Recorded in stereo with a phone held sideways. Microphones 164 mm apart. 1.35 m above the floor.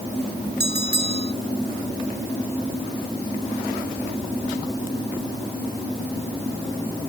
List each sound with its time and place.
0.6 s a bell: 80° right